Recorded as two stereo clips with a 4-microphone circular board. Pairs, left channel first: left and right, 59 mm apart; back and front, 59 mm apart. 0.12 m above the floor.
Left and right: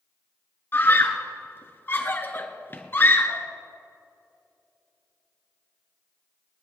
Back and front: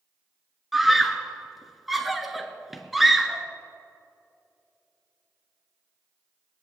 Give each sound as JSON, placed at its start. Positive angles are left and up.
{"t": 0.7, "sound": "a scream", "azimuth_deg": 85, "distance_m": 1.3}